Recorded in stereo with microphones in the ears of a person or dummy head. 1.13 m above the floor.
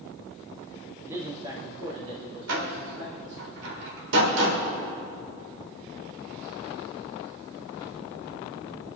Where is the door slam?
70° right (ahead or behind), 3 m.